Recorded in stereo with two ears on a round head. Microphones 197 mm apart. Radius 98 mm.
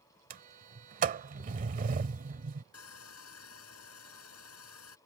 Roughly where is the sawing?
Left.